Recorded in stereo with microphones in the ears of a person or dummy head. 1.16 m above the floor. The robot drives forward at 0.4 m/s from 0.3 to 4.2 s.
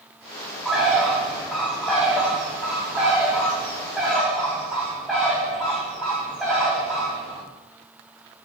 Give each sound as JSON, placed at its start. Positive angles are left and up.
{"t": 0.7, "sound": "a bird", "side_deg": 0, "distance_m": 3.0}